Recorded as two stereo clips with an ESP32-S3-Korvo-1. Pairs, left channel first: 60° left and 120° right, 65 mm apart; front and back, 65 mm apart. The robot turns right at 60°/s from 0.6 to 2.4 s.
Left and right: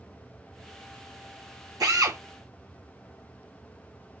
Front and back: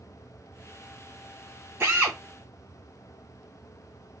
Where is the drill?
130° right, 2.5 m; by 2.2 s 110° right, 2.5 m.